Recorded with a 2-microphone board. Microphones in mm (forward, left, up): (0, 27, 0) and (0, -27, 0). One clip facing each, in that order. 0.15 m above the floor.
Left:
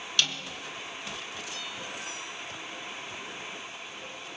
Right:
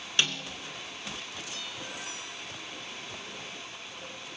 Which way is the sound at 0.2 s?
30° right (ahead or behind).